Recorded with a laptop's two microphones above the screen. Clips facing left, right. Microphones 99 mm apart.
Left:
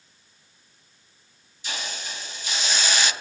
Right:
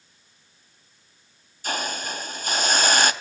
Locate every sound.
1.6 s a hiss: 50° right (ahead or behind), 0.6 m